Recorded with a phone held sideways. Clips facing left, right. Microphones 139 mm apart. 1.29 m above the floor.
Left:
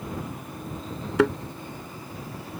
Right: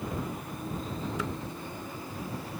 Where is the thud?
75° left (ahead or behind).